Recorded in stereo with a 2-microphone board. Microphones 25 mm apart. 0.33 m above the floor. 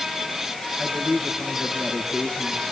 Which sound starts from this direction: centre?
A man speaking, at 0.8 s.